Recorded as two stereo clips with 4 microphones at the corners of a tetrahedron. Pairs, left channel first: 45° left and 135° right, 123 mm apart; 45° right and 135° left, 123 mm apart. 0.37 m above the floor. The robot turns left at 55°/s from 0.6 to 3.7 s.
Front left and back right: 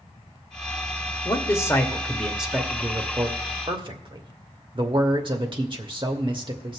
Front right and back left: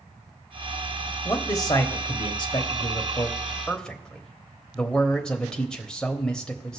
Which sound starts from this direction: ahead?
A man speaking, at 1.2 s.